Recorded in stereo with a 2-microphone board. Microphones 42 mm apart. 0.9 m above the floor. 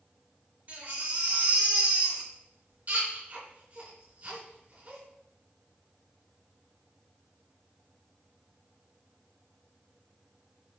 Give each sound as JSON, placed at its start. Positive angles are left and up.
{"t": 0.7, "sound": "a baby crying", "side_deg": -50, "distance_m": 3.5}